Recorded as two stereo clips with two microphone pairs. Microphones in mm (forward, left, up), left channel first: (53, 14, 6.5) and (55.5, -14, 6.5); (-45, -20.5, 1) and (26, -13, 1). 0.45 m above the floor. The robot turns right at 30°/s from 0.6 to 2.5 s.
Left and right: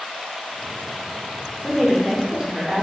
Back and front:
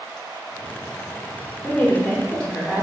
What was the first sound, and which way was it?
A woman speaking, 135° right.